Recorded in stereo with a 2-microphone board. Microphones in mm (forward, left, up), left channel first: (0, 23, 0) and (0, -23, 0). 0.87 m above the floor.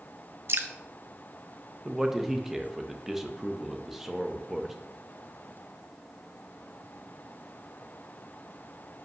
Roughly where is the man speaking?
Centre.